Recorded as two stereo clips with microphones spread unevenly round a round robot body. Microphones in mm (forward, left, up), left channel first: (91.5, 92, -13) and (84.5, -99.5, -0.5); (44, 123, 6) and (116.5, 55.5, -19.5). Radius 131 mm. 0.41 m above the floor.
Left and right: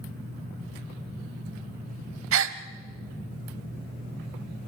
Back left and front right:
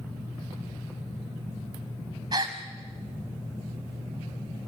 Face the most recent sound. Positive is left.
turn(degrees=-105)